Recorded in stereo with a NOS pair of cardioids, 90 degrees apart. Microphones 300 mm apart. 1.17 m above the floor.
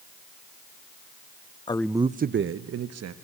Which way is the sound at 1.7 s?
20° left.